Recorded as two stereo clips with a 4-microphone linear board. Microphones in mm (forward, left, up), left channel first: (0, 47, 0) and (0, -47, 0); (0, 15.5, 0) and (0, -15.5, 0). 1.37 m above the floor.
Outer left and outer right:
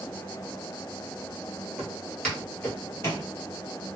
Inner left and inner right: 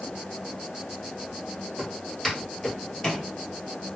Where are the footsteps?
Centre (ahead or behind), 1.7 m; by 3.3 s 35° left (ahead or behind), 1.6 m.